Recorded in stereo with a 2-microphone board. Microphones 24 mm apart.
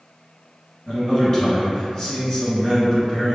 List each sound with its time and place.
0.9 s a man speaking: 30° left (ahead or behind), 1.4 m